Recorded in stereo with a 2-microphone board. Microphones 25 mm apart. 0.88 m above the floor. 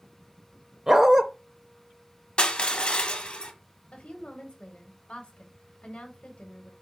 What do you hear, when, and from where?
0.9 s a dog barking: 20° right (ahead or behind), 0.6 m
2.4 s crushing: 45° left (ahead or behind), 1.0 m
3.9 s a woman speaking: 55° left (ahead or behind), 1.2 m